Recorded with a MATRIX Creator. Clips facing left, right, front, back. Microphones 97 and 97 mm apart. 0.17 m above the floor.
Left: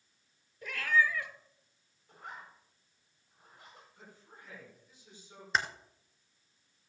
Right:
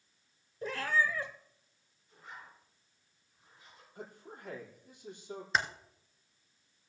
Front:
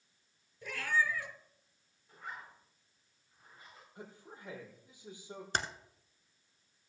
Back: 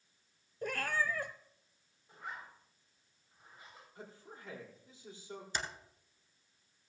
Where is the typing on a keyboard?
Straight ahead, 1.2 m.